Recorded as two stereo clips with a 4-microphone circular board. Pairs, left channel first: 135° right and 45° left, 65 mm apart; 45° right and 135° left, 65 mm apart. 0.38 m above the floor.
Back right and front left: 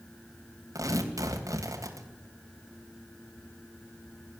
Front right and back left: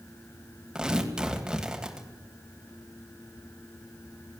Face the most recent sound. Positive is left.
turn(degrees=55)